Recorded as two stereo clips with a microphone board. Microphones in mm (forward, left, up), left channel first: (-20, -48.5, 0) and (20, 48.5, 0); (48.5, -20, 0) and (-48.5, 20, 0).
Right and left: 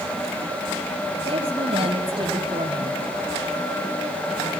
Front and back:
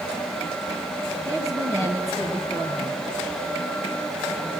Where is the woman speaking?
100° left, 3 m.